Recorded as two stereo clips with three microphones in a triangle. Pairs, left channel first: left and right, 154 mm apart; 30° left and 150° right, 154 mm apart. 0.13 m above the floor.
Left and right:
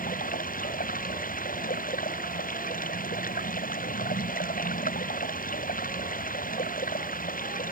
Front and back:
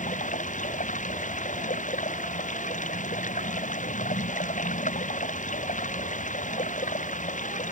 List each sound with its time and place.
0.0 s running water: 65° left